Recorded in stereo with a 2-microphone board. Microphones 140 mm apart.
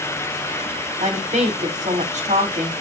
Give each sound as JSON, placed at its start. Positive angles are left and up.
{"t": 1.0, "sound": "a woman speaking", "side_deg": -55, "distance_m": 2.0}